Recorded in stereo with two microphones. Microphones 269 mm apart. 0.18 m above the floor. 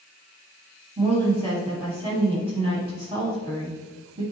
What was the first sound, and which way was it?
A woman speaking, 20° right (ahead or behind).